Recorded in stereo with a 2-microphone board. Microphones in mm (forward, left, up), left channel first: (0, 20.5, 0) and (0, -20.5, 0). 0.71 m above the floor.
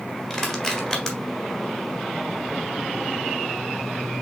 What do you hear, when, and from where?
0.3 s crushing: 10° left (ahead or behind), 1.4 m